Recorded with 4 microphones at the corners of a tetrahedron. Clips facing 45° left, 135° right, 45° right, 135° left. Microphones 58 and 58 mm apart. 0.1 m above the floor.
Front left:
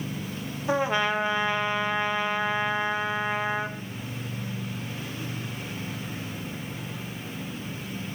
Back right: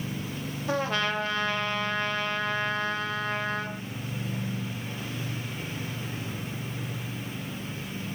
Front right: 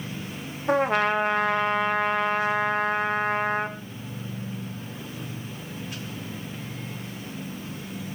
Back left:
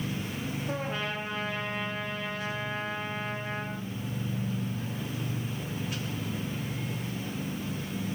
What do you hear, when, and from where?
0.7 s a trumpet: 30° right, 2 m